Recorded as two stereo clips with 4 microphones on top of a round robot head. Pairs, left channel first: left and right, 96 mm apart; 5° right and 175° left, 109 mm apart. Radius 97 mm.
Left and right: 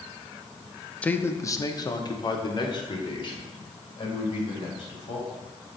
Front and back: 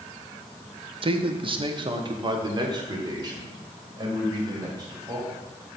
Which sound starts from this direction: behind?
A man speaking, at 1.0 s.